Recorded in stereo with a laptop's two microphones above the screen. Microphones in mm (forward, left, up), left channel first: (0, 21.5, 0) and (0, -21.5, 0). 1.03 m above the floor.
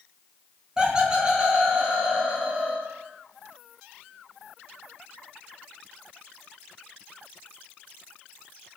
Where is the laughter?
20° right (ahead or behind), 0.7 m.